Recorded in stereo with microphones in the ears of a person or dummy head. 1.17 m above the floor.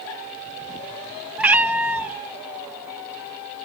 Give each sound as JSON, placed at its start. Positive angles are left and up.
{"t": 1.4, "sound": "a cat meowing", "side_deg": -5, "distance_m": 0.5}